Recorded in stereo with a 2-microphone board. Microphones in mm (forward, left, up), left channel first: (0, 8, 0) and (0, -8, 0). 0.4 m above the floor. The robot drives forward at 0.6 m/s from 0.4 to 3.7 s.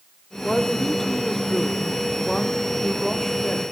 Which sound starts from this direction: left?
A woman speaking, at 0.4 s.